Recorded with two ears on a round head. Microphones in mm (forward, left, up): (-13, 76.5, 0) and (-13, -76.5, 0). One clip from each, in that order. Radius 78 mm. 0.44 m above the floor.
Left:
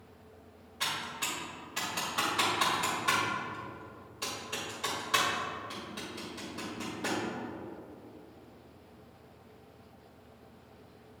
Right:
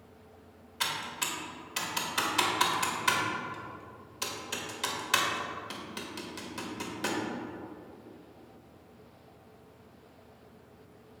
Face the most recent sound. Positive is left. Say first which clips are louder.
# right 1 dB
turn(degrees=-50)  # may be behind; listen again after turning